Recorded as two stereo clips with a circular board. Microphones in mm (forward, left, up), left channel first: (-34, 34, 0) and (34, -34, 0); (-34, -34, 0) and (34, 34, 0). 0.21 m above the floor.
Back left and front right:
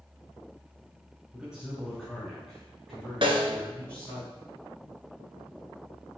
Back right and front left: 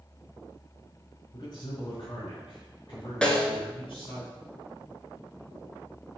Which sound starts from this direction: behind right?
A man speaking, at 1.3 s.